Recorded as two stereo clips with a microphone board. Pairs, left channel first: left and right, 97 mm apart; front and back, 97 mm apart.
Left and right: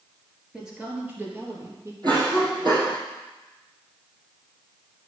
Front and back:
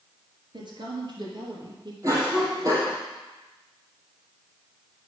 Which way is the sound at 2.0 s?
130° right.